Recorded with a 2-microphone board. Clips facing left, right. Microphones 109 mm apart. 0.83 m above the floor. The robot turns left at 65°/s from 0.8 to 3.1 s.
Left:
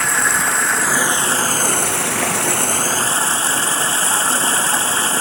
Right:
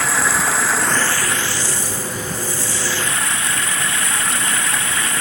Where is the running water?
Straight behind; by 5.2 s 30° left.